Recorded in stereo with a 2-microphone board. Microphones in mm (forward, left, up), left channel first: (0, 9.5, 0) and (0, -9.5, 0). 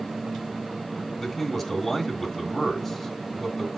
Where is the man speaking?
5° right (ahead or behind), 1.7 m.